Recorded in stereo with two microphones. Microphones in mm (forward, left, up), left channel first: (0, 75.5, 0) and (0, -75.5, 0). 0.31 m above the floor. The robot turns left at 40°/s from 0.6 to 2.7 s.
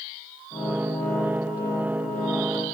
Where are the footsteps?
No footsteps in this recording.